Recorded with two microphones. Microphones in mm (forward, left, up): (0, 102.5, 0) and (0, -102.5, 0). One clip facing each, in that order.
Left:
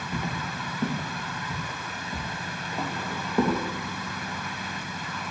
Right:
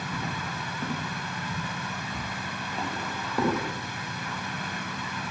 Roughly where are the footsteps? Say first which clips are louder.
Left 5 dB; left.